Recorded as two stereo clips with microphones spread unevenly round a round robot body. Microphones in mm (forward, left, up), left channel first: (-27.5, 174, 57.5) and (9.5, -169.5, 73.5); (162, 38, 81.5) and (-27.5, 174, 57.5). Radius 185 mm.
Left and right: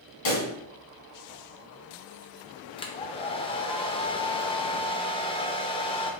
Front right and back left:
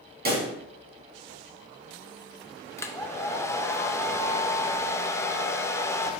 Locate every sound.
0.2 s a pop: 95° left, 2.0 m
2.8 s a hair dryer: 45° left, 0.5 m